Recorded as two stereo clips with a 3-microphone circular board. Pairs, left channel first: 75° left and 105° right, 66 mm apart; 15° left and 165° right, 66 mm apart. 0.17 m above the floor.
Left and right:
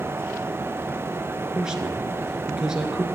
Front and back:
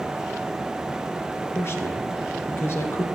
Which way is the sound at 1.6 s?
30° right.